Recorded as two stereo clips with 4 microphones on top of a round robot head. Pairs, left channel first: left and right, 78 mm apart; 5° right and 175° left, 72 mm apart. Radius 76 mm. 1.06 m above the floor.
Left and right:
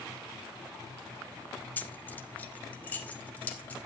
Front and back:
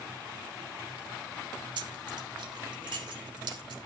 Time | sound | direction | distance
1.8 | keys jangling | 160° left | 1.3 m